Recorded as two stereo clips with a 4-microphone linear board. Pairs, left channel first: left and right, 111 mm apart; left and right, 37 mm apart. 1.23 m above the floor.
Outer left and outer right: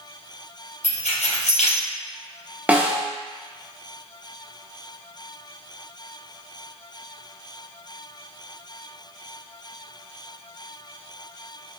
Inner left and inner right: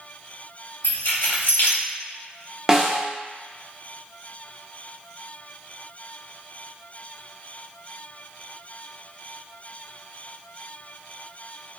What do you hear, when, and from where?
0.8 s keys jangling: 75° left (ahead or behind), 0.7 m
2.7 s a snare drum: 15° right (ahead or behind), 0.5 m